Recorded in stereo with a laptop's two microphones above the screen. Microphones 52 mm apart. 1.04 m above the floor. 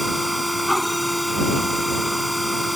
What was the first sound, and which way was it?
A machine running, centre (ahead or behind).